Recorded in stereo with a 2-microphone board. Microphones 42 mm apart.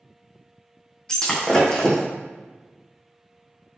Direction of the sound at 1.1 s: 15° left (ahead or behind).